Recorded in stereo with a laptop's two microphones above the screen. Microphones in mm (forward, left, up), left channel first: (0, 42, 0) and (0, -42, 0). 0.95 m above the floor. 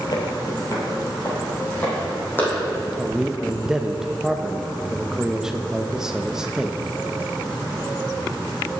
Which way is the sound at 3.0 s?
5° right (ahead or behind).